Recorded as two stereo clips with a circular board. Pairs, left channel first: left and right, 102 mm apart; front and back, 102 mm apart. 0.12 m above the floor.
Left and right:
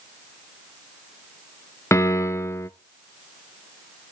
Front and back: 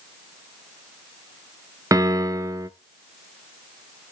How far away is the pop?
No pop in this recording.